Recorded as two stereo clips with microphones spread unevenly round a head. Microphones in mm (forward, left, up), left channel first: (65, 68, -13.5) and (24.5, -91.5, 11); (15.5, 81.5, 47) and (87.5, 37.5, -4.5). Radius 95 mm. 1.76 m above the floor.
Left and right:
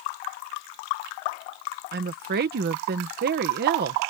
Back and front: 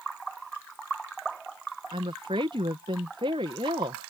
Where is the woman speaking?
85° right.